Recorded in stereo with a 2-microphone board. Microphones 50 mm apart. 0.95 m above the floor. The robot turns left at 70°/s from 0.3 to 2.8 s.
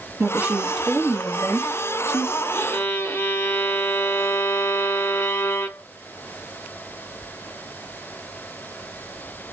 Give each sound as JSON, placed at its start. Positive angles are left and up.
{"t": 0.2, "sound": "a woman speaking", "azimuth_deg": -125, "distance_m": 0.9}
{"t": 2.5, "sound": "a violin", "side_deg": 35, "distance_m": 0.7}